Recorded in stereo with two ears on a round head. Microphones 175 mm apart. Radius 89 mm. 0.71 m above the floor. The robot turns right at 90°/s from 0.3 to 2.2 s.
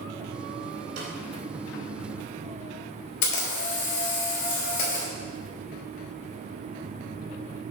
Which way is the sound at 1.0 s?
55° right (ahead or behind).